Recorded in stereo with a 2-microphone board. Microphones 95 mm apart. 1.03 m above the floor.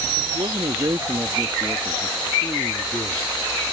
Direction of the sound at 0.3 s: 65° right (ahead or behind).